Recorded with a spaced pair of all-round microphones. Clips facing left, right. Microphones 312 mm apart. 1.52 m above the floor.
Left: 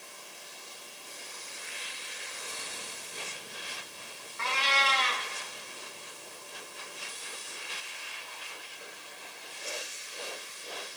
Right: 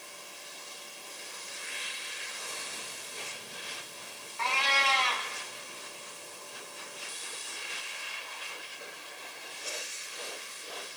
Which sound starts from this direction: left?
A cat meowing, at 4.4 s.